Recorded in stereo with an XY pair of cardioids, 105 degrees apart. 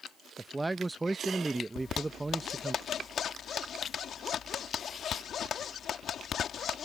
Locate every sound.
0.4 s a man speaking: 15° right
1.8 s a zipper: 60° left